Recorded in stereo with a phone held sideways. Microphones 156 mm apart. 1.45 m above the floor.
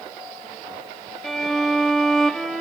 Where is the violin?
Centre (ahead or behind), 1.2 m.